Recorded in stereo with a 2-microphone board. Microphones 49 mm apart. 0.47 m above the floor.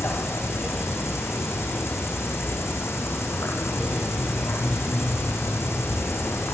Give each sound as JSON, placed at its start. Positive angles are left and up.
{"t": 0.0, "sound": "an insect", "side_deg": 65, "distance_m": 6.5}